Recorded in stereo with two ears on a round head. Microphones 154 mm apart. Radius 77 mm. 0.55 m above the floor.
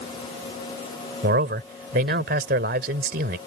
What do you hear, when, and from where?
1.2 s a man speaking: 55° right (ahead or behind)